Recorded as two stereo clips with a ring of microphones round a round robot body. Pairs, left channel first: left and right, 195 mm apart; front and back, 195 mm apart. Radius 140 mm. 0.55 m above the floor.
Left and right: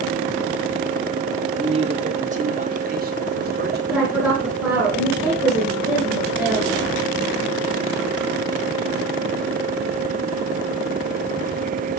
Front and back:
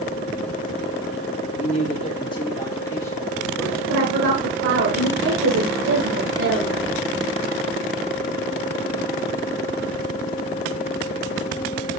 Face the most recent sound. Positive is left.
turn(degrees=-175)